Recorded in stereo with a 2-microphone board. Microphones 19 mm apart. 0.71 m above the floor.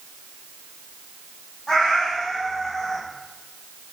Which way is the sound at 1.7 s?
25° left (ahead or behind).